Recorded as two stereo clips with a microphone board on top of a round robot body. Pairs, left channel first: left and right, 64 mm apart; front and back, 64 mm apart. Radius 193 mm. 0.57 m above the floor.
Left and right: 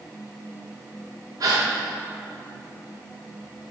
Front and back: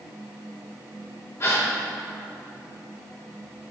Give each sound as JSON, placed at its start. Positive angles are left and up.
{"t": 1.4, "sound": "a gasp", "azimuth_deg": -55, "distance_m": 0.9}